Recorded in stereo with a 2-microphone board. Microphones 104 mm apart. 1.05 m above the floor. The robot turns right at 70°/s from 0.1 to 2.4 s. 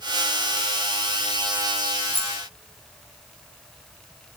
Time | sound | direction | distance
2.1 | keys jangling | 65° right (ahead or behind) | 0.7 m